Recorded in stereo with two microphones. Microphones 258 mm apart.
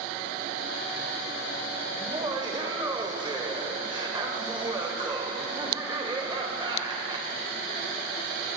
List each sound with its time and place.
2.0 s laughter: 15° right (ahead or behind), 0.9 m